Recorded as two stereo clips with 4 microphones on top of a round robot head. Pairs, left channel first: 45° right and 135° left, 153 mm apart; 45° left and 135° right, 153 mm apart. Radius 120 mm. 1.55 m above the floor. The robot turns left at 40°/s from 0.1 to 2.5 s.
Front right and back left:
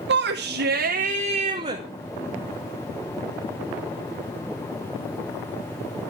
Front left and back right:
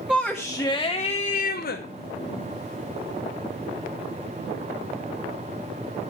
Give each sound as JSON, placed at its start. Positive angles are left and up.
{"t": 0.1, "sound": "a shout", "azimuth_deg": 145, "distance_m": 1.3}